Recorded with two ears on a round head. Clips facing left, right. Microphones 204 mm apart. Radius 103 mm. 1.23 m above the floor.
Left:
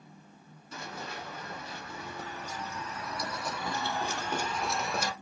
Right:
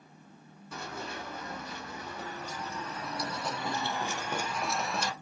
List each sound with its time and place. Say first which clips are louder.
0.7 s running footsteps: right 1 dB; 45° right (ahead or behind), 3 m; by 5.1 s 5° left (ahead or behind), 1.5 m